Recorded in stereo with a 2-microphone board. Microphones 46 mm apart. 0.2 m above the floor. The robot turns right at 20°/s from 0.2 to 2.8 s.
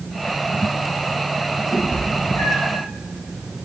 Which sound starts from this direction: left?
A cat meowing, at 1.7 s.